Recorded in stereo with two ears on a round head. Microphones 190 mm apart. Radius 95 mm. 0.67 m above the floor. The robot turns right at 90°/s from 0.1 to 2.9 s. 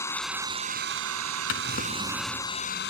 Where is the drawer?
110° left; by 2.5 s 160° right.